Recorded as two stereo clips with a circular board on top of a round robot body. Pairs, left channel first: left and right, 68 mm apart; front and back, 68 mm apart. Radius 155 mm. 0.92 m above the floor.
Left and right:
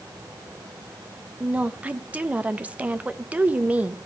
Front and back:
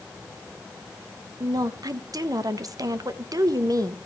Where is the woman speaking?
160° right, 1.2 m.